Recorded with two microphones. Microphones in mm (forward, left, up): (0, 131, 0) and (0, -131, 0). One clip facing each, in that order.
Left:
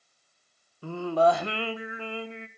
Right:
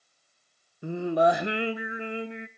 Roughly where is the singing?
Centre.